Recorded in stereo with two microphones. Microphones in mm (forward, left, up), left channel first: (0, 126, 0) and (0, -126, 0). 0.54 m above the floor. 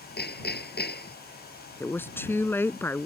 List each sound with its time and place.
0.2 s hammering: 45° left (ahead or behind)
1.8 s a woman speaking: 10° left (ahead or behind)